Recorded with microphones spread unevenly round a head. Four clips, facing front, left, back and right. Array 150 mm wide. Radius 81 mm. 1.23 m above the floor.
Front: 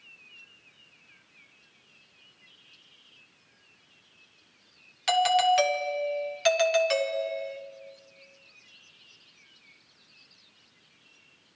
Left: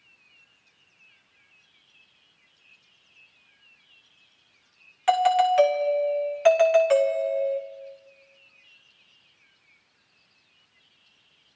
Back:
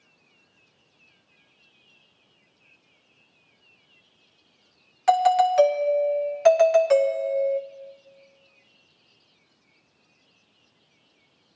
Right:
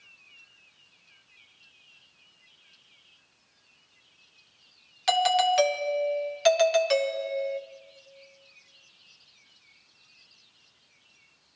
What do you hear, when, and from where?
5.1 s a doorbell: 160° left, 0.8 m